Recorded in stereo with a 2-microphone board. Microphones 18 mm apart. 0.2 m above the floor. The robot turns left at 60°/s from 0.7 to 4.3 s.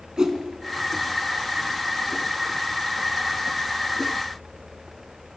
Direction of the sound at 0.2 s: 40° right (ahead or behind).